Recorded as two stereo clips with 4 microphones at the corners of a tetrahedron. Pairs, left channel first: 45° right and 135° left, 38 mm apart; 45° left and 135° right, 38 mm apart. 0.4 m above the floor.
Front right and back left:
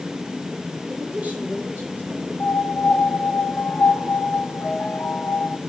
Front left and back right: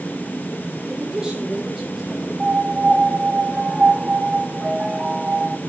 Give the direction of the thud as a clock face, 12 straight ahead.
I don't hear a thud.